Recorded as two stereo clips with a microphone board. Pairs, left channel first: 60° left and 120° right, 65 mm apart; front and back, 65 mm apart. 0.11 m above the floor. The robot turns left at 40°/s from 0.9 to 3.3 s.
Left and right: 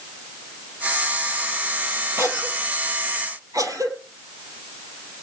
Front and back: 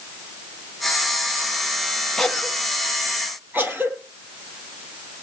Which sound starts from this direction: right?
A cough, at 2.2 s.